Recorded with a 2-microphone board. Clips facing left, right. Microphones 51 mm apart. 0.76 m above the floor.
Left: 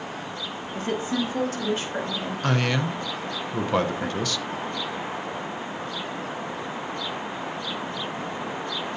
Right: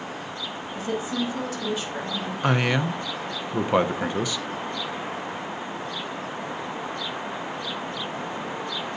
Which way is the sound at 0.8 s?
50° left (ahead or behind).